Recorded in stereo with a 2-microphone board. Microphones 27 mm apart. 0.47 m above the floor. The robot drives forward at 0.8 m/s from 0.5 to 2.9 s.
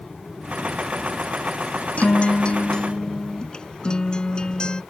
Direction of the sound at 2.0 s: 65° left (ahead or behind).